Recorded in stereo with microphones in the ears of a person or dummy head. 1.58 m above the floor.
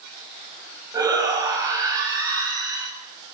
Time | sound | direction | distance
0.9 | a shout | 15° right (ahead or behind) | 9.5 m